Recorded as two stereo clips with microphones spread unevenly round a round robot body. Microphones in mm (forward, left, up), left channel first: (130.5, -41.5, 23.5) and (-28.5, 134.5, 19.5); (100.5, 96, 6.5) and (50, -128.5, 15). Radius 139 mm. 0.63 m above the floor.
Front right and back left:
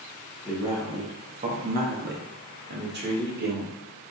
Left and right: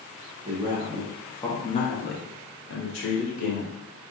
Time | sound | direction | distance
0.5 | a man speaking | 135° right | 0.7 m